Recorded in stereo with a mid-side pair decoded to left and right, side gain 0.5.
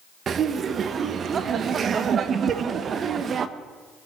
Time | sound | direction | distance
0.3 | laughter | 45° right | 1.2 m
2.5 | tapping | 60° right | 1.1 m